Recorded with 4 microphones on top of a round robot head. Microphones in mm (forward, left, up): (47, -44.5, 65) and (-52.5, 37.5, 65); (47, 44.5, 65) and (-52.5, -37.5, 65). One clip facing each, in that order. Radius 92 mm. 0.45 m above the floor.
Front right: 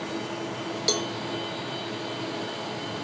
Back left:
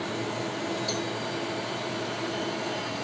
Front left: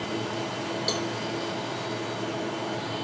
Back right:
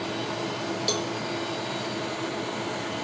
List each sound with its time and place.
0.9 s a cowbell: 60° right, 0.6 m